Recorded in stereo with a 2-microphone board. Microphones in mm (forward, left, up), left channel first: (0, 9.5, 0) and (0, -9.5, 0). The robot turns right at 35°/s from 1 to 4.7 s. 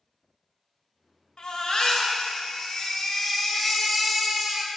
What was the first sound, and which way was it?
A baby crying, 70° left.